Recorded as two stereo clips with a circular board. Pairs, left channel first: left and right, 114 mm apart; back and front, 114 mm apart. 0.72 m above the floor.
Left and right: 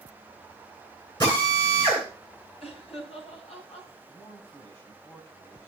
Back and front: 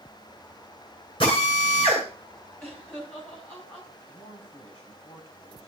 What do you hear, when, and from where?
1.2 s a drill: 140° left, 9.5 m
2.6 s laughter: 105° left, 7 m
4.1 s a man speaking: 150° left, 5.5 m